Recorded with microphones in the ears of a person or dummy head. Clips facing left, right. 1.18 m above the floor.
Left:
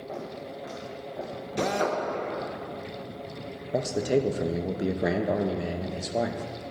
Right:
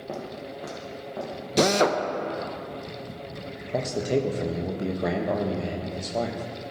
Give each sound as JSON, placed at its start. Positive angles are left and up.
{"t": 0.1, "sound": "footsteps", "side_deg": -50, "distance_m": 1.9}
{"t": 1.6, "sound": "a drill", "side_deg": -55, "distance_m": 0.6}
{"t": 3.7, "sound": "a man speaking", "side_deg": 10, "distance_m": 0.5}